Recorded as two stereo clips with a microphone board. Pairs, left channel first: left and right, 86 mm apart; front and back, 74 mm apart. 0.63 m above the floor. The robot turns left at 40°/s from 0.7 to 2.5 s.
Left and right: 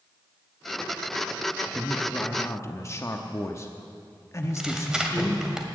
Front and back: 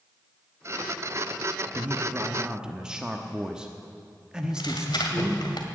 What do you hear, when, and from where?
1.8 s a man speaking: 140° left, 0.9 m; by 5.4 s 110° left, 0.9 m
4.4 s tearing paper: 10° right, 1.8 m